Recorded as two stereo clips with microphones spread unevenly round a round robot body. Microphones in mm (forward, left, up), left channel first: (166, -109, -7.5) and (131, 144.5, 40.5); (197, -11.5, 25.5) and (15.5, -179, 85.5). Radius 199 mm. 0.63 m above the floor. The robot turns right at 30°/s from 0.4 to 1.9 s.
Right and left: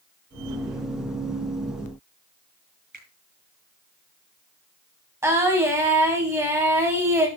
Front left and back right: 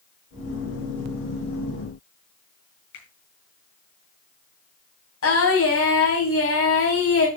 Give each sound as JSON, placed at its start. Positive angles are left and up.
{"t": 2.9, "sound": "a finger snap", "azimuth_deg": 45, "distance_m": 7.5}
{"t": 5.2, "sound": "singing", "azimuth_deg": 15, "distance_m": 4.5}